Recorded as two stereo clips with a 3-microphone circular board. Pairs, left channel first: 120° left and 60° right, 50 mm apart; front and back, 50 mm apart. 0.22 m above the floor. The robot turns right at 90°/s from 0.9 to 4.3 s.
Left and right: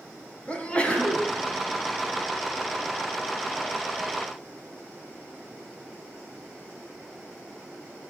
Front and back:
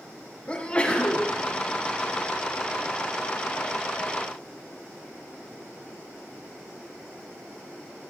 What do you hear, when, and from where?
0.5 s a sneeze: 60° left, 1.8 m; by 1.3 s 95° left, 1.8 m